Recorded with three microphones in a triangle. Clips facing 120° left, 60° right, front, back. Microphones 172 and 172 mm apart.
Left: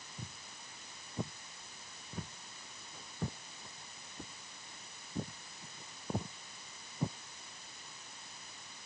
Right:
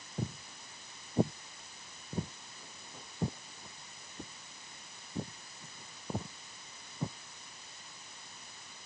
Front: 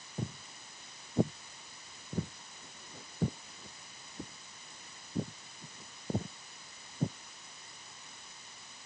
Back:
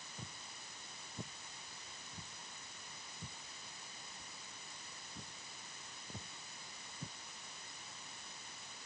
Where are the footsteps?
35° right; by 7.2 s 35° left.